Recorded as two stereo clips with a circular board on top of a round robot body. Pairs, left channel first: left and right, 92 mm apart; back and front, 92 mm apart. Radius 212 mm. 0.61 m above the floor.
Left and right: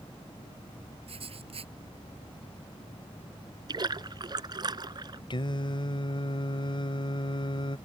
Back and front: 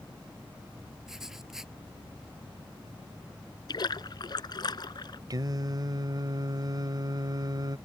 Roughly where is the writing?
Right.